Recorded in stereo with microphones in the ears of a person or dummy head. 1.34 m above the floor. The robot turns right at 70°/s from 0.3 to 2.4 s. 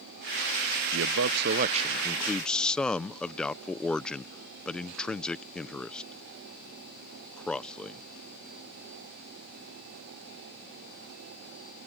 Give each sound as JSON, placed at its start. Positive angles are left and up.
{"t": 0.9, "sound": "a man speaking", "side_deg": -65}